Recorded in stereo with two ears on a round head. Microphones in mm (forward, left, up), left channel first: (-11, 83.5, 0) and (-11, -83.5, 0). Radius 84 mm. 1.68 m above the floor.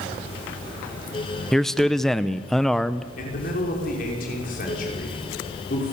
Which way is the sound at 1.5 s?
Centre (ahead or behind).